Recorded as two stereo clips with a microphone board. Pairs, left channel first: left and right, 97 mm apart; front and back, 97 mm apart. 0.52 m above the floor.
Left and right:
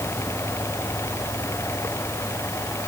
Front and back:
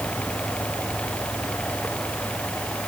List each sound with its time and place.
Only background noise.